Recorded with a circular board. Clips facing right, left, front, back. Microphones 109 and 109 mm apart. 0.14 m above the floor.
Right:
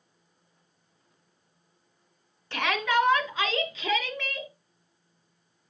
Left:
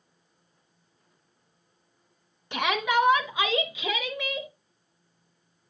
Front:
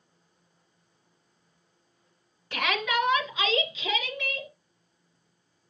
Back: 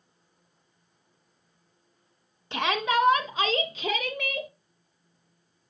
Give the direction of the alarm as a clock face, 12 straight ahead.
I don't hear an alarm.